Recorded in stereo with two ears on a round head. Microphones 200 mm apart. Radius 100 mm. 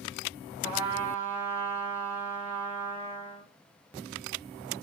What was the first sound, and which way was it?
A trumpet, 30° right (ahead or behind).